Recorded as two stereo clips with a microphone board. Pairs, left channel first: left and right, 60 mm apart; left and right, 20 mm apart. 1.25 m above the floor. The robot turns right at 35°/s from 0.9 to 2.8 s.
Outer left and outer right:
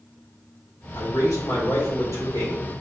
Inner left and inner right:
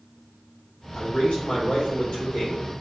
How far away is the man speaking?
About 1.8 m.